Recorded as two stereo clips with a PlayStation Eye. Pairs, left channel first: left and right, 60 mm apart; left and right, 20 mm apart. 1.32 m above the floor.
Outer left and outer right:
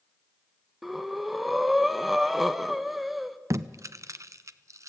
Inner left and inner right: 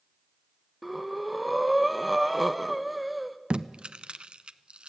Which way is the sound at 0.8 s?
Centre (ahead or behind).